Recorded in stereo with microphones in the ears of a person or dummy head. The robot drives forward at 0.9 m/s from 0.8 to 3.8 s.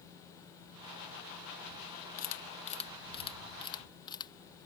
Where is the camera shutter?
45° left (ahead or behind); by 4.3 s 25° left (ahead or behind).